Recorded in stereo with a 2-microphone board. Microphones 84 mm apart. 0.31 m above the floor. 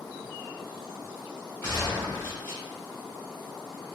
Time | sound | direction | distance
1.6 | a gunshot | 30° left (ahead or behind) | 1.9 m